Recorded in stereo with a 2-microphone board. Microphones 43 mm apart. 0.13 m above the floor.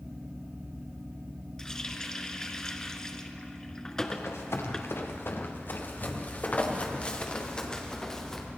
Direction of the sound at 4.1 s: 75° left (ahead or behind).